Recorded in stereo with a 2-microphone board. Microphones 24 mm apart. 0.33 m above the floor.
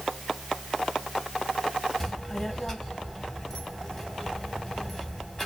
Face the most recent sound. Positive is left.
turn(degrees=15)  # may be behind; listen again after turning